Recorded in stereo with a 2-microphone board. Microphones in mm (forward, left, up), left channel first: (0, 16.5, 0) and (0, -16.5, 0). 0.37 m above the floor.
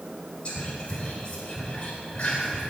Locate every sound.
0.5 s whispering: 35° left (ahead or behind), 1.3 m